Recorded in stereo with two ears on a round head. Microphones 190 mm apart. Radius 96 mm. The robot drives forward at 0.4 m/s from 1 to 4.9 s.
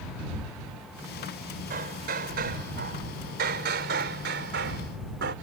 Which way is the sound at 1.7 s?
40° right (ahead or behind).